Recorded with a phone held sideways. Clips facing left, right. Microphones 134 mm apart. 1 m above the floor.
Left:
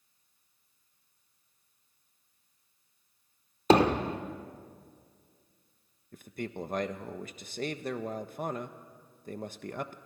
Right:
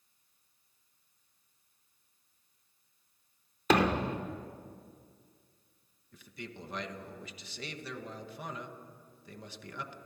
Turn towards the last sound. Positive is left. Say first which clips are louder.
# left 8 dB
turn(degrees=50)  # may be behind; listen again after turning